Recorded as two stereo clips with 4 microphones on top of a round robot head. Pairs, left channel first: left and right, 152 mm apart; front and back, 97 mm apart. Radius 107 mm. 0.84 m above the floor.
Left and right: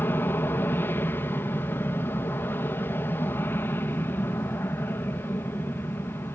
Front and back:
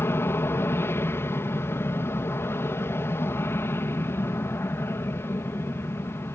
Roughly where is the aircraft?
Ahead left.